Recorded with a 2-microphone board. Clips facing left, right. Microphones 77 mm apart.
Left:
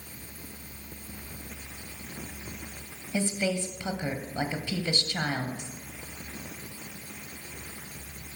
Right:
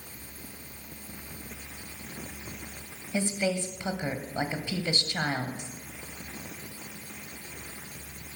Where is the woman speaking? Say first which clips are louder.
Even; 20° right (ahead or behind), 1.0 m.